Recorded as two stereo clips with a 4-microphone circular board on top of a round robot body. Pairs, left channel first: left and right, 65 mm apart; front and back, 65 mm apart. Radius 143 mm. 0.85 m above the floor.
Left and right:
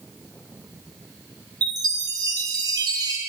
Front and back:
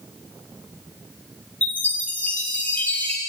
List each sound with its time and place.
1.6 s a chime: 70° right, 3.5 m